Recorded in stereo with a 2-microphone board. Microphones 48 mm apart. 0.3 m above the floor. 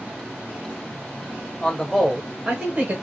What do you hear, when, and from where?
1.6 s a man speaking: 20° left (ahead or behind), 1.1 m; by 2.9 s 35° right (ahead or behind), 1.1 m